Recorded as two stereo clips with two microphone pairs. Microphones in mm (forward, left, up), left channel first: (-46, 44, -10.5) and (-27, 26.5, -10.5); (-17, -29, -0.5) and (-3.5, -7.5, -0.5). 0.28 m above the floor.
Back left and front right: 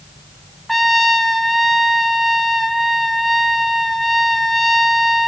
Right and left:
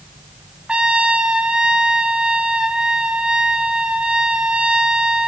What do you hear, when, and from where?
0.7 s a trumpet: 55° left, 1.6 m